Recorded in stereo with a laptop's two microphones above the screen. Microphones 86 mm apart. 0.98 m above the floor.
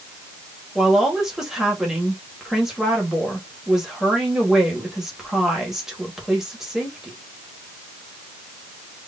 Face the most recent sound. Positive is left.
turn(degrees=-5)  # may be behind; listen again after turning